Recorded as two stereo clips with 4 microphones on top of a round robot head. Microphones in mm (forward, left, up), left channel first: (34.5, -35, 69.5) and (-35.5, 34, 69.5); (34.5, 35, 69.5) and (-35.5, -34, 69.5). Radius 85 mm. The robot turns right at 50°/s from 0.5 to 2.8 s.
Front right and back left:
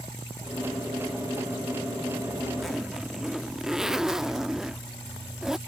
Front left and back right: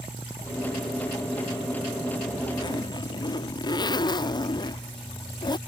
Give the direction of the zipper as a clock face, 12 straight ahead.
11 o'clock.